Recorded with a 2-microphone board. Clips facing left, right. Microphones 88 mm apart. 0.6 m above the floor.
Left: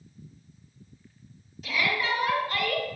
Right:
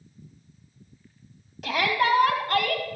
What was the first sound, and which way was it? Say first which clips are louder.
A shout: right 5 dB; 75° right (ahead or behind).